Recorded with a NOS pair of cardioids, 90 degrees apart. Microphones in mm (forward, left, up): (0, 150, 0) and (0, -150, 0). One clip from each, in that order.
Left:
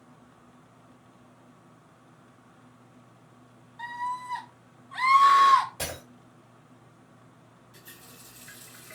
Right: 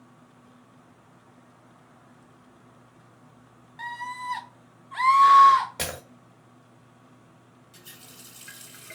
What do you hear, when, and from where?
3.8 s a scream: 55° right, 1.1 m; by 5.7 s 35° left, 0.6 m
5.8 s breaking glass: 70° right, 1.3 m
7.7 s a running tap: 40° right, 1.2 m